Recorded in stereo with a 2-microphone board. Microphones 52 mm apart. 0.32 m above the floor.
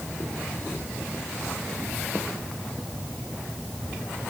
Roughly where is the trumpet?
I don't hear a trumpet.